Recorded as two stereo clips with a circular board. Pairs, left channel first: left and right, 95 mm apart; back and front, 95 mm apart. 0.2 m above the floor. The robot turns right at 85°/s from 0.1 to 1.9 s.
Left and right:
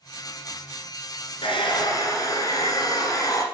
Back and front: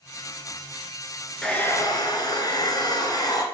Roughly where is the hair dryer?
Left.